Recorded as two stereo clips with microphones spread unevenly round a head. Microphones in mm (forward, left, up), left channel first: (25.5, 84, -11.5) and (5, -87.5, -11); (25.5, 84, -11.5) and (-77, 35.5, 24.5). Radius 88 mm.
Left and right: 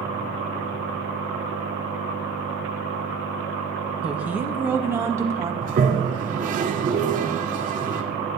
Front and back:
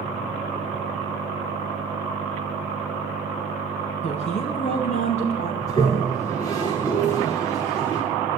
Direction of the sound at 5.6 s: 55° right.